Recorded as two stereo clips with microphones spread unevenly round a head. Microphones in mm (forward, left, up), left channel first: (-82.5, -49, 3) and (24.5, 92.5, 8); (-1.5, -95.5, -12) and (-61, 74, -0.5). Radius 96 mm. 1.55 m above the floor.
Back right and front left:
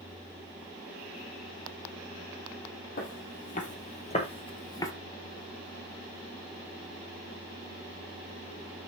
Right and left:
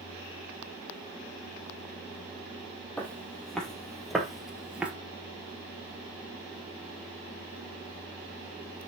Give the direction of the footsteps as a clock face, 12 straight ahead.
5 o'clock.